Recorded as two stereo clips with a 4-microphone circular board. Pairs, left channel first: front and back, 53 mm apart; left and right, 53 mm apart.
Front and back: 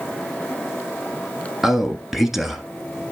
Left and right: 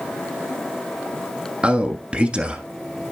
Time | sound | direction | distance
1.6 | a man speaking | 100° right | 1.2 m